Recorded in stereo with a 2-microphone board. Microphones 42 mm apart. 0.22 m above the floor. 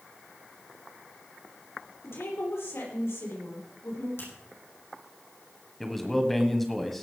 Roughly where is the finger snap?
Left.